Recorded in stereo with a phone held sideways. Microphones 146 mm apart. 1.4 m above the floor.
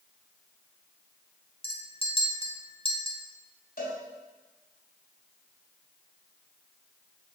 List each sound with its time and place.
1.6 s a clink: 35° left (ahead or behind), 1.2 m
3.8 s a cowbell: 80° left, 3.5 m